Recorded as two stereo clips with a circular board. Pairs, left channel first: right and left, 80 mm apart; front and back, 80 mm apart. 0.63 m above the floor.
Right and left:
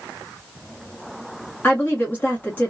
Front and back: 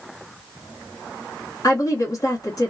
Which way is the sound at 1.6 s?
30° right.